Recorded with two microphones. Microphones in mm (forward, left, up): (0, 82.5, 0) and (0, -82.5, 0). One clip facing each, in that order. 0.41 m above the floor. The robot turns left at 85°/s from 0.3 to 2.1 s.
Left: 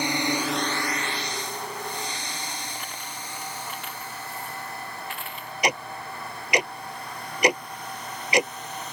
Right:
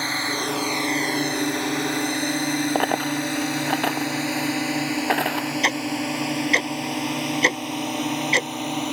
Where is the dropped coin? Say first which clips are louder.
Right 17 dB; 70° right (ahead or behind).